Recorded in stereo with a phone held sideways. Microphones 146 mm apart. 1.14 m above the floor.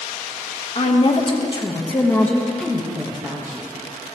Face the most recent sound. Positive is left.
turn(degrees=-20)  # may be behind; listen again after turning